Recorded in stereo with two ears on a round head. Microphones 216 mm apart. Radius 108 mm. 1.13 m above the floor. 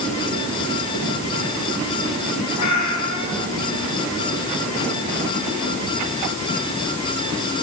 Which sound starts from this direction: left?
A cat meowing, at 2.6 s.